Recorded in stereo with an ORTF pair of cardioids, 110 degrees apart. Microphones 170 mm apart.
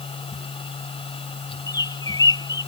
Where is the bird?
20° left.